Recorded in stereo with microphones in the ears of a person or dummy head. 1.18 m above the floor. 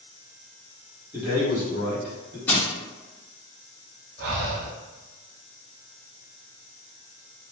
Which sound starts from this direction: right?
Breathing, at 4.2 s.